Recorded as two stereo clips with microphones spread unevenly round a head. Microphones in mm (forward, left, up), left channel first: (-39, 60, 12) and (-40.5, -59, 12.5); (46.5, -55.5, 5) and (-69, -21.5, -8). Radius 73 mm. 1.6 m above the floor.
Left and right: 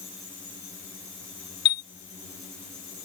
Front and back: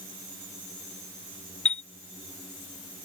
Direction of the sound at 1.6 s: 50° left.